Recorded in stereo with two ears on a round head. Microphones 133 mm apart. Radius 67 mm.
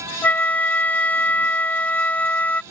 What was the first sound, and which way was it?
A flute, 10° left (ahead or behind).